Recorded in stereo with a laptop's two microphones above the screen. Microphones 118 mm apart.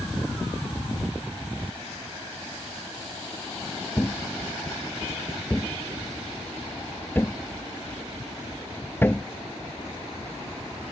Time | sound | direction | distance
4.0 | a thud | 20° left (ahead or behind) | ?